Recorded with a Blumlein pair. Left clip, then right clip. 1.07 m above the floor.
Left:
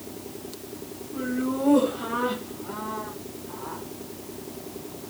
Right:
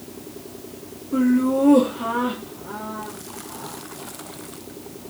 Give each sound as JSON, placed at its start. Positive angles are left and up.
{"t": 1.1, "sound": "laughter", "azimuth_deg": -50, "distance_m": 1.7}